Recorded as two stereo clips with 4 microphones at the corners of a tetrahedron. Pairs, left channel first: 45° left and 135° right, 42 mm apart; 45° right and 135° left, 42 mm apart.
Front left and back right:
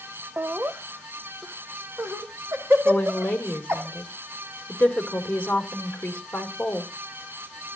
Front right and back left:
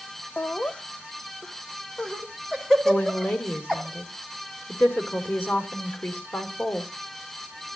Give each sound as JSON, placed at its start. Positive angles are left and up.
{"t": 0.4, "sound": "laughter", "azimuth_deg": -95, "distance_m": 0.7}
{"t": 2.9, "sound": "a woman speaking", "azimuth_deg": -10, "distance_m": 2.5}